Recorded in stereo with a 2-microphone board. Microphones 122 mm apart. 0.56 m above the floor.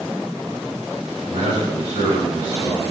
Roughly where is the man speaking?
Right.